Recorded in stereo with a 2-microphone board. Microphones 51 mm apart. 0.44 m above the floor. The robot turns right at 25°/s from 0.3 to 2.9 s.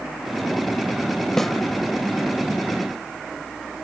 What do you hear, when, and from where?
1.4 s a snare drum: 5° left (ahead or behind), 0.8 m